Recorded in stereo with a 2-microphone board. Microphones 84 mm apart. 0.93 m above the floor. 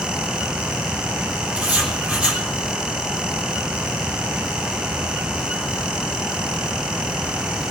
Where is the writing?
15° right (ahead or behind), 3.5 m.